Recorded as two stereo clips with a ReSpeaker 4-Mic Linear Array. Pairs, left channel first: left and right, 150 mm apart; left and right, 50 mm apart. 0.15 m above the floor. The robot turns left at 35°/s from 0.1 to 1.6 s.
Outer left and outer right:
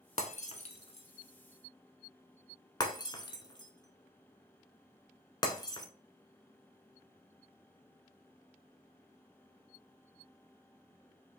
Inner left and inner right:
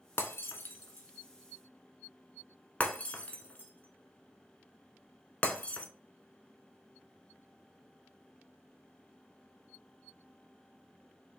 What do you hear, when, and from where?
0.2 s breaking glass: 50° left (ahead or behind), 0.6 m; by 5.9 s 30° left (ahead or behind), 0.6 m